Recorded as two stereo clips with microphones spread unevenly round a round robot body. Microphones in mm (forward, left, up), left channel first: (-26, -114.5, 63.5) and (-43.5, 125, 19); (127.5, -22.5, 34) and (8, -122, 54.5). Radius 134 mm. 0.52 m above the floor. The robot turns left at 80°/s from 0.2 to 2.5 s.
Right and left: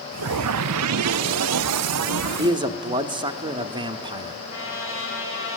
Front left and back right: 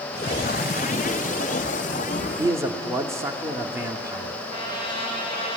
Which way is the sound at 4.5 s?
125° right.